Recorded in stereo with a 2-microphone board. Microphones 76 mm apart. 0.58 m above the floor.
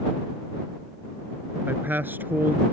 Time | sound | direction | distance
1.7 | a man speaking | 25° right (ahead or behind) | ?